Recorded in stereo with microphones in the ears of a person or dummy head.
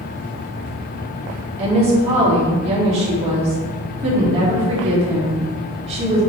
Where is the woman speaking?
35° right (ahead or behind), 3 m.